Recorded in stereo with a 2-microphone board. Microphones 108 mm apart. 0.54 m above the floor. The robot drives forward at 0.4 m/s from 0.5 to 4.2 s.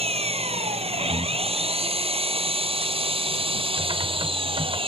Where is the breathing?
35° right (ahead or behind).